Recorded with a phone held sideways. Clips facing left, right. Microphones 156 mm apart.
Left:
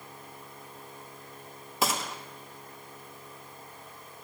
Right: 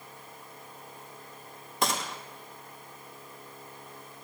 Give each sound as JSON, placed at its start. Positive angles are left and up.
{"t": 1.8, "sound": "a gunshot", "side_deg": 5, "distance_m": 0.6}